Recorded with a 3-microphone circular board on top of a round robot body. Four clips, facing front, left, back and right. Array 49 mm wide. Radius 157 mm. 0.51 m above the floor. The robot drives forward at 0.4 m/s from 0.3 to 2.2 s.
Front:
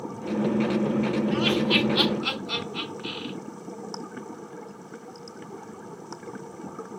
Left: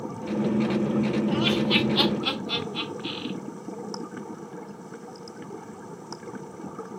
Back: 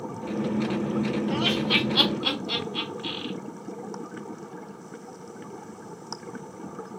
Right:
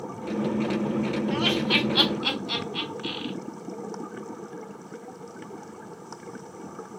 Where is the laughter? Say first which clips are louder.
Right 1 dB, front 1 dB; 125° right, 2 m; by 3.3 s 130° right, 2 m.